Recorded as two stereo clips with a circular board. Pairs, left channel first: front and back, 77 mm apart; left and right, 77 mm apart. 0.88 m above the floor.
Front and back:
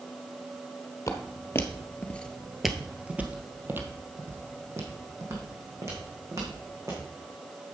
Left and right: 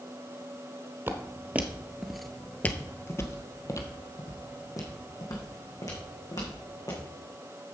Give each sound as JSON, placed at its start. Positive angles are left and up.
{"t": 1.1, "sound": "footsteps", "azimuth_deg": -40, "distance_m": 1.3}